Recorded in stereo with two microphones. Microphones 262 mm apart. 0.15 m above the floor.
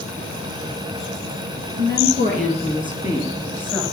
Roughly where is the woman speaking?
Right.